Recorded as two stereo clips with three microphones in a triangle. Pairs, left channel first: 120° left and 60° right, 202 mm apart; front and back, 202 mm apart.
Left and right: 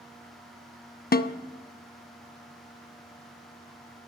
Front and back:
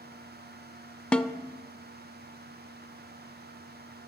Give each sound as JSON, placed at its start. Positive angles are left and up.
{"t": 1.1, "sound": "a snare drum", "azimuth_deg": 85, "distance_m": 0.5}